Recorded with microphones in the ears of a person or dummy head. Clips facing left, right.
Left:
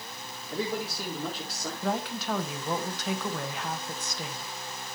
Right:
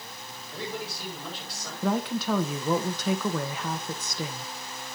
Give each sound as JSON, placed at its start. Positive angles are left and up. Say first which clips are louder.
{"t": 0.5, "sound": "a man speaking", "louder": "left 4 dB", "side_deg": 60, "distance_m": 4.5}
{"t": 1.8, "sound": "a woman speaking", "louder": "right 5 dB", "side_deg": -75, "distance_m": 1.2}